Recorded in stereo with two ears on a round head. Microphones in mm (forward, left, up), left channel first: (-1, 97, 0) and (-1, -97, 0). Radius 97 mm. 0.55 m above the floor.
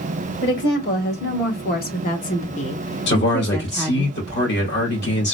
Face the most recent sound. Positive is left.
turn(degrees=55)  # may be behind; listen again after turning